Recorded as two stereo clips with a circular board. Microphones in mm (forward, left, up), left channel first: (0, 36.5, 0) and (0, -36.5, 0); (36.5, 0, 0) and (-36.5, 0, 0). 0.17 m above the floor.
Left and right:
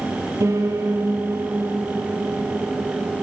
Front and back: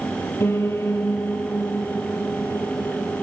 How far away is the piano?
About 3.5 m.